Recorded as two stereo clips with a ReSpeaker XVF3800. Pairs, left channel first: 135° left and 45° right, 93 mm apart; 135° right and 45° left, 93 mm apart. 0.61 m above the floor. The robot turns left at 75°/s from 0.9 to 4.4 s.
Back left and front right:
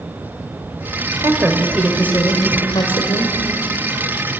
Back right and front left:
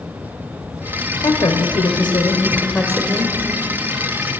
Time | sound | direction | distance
1.2 | a woman speaking | 90° right | 2 m